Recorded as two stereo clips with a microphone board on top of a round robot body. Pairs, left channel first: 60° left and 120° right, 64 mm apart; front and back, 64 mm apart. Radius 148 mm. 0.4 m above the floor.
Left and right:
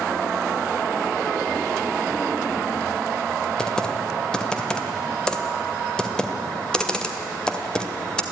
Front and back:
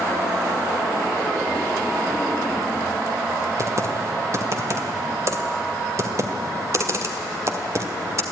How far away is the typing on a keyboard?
About 2 m.